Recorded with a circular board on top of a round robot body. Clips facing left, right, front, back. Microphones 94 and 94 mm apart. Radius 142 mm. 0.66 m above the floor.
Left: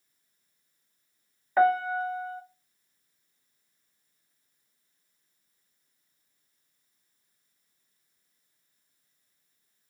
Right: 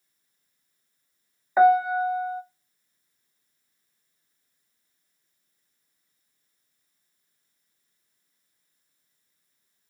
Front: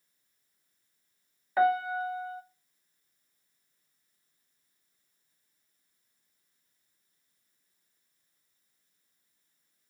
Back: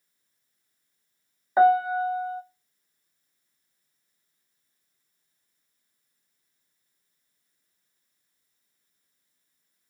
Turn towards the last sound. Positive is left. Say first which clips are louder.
# right 5 dB, back 7 dB
turn(degrees=-160)